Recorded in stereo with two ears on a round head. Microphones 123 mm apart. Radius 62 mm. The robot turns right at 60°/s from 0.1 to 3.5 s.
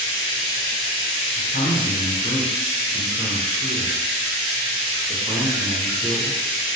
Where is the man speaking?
65° left (ahead or behind), 0.7 m; by 6.7 s 25° right (ahead or behind), 0.7 m.